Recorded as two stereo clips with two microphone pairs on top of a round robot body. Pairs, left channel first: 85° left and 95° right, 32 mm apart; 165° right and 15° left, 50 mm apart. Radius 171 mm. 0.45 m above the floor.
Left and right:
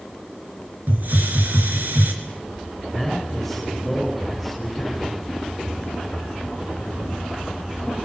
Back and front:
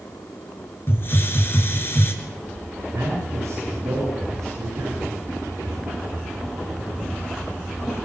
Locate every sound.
0.9 s a hiss: 120° right, 3.5 m
2.9 s a man speaking: 10° right, 7 m